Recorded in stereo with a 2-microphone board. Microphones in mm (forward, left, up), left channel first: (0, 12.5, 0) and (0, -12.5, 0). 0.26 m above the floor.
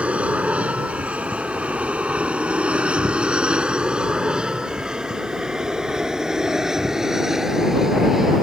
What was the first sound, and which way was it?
An aircraft, 65° right (ahead or behind).